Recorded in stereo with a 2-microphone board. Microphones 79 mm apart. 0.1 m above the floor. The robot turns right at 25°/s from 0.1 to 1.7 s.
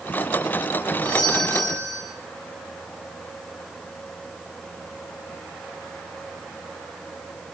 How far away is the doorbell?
About 9.5 m.